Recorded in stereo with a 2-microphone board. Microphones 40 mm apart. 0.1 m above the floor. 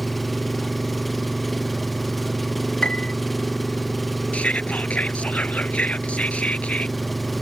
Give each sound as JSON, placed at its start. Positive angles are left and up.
{"t": 0.0, "sound": "an engine running", "side_deg": 0}
{"t": 2.8, "sound": "a piano", "side_deg": 25}
{"t": 4.3, "sound": "whispering", "side_deg": 35}